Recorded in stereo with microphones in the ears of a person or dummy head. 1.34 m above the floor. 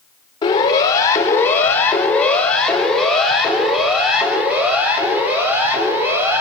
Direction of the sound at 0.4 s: 25° left (ahead or behind).